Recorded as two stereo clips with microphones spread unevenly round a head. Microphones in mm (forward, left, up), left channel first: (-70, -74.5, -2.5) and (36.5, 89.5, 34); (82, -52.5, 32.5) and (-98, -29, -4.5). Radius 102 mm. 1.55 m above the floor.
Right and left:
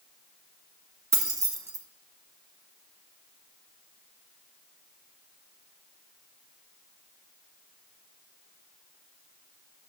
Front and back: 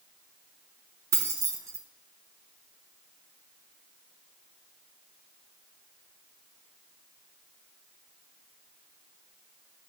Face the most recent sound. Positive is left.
turn(degrees=90)